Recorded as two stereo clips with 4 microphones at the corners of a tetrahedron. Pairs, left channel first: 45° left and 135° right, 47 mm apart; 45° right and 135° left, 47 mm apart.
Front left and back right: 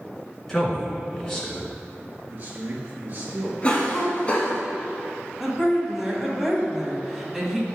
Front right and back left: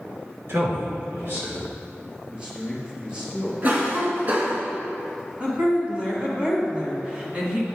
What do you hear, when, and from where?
0.5 s a man speaking: 125° left, 2.5 m
2.3 s a man speaking: 170° right, 1.5 m
3.6 s a cough: 95° left, 1.6 m
5.4 s a woman speaking: 150° left, 1.4 m